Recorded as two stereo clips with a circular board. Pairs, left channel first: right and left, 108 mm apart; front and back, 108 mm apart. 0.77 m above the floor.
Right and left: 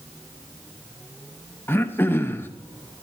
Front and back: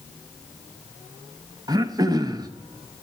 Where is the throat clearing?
150° right, 0.7 m.